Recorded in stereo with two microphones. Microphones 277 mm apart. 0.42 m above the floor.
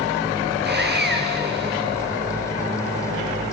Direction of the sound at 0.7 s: 40° right (ahead or behind).